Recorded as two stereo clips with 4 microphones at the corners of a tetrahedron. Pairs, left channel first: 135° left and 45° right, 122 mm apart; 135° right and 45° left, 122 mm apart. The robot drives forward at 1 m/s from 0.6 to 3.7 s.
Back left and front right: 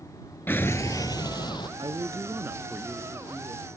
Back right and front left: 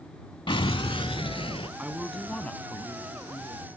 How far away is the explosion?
About 0.5 m.